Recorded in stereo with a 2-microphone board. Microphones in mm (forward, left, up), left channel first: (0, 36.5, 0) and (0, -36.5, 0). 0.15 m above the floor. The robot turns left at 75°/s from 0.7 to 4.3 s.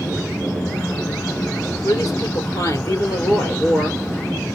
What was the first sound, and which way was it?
A woman speaking, 125° left.